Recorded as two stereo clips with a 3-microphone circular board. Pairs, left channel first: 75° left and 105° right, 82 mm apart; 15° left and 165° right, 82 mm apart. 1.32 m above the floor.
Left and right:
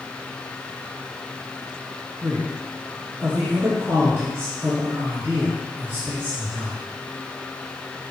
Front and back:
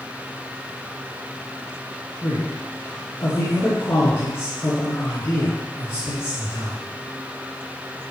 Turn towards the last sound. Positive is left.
turn(degrees=-45)